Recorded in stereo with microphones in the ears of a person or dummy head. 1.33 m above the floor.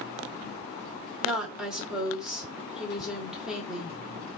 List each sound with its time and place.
1.2 s a woman speaking: 5° right (ahead or behind), 1.1 m